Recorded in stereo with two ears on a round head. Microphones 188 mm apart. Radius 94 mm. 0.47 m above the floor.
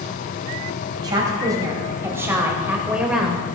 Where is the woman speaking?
20° right (ahead or behind), 3 m; by 3.5 s centre (ahead or behind), 1.9 m.